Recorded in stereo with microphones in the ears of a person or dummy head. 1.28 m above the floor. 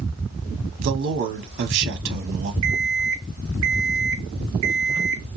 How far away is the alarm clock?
About 0.5 m.